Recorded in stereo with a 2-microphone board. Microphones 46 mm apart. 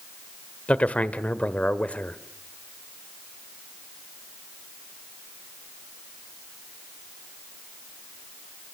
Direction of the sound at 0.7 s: 30° left (ahead or behind).